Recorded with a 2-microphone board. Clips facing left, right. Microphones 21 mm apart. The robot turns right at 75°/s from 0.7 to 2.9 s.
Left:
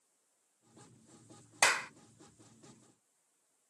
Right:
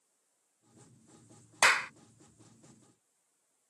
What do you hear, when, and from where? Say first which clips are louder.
1.6 s a clap: right 4 dB; 25° right (ahead or behind); by 1.9 s 20° right (ahead or behind)